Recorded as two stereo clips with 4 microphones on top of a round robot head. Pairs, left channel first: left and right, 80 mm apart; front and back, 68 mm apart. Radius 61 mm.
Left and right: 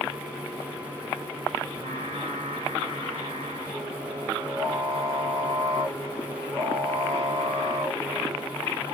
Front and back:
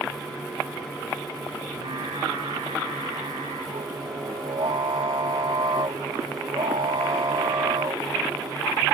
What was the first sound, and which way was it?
Singing, 145° right.